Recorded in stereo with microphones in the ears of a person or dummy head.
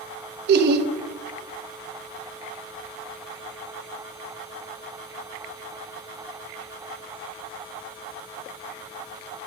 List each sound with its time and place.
0.5 s laughter: 60° right (ahead or behind), 0.7 m